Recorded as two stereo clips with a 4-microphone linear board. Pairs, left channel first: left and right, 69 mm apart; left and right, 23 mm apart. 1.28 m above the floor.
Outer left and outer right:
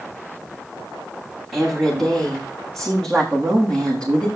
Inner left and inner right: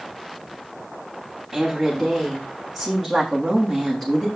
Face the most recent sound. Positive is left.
turn(degrees=15)  # may be behind; listen again after turning